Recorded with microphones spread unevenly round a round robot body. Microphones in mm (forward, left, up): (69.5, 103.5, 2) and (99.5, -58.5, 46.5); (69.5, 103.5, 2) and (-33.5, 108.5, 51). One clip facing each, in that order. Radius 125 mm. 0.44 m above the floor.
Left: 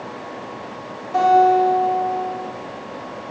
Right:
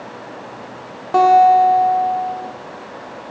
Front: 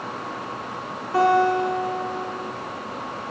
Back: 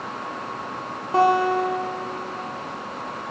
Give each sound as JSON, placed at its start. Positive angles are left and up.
{"t": 1.1, "sound": "a guitar", "azimuth_deg": -95, "distance_m": 1.1}